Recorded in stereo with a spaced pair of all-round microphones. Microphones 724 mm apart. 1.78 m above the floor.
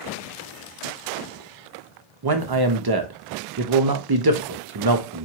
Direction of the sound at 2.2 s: 35° right (ahead or behind).